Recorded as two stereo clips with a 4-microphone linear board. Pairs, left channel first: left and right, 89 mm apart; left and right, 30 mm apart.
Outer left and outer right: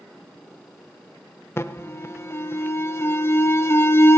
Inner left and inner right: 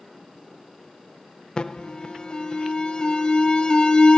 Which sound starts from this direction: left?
An alarm, at 1.6 s.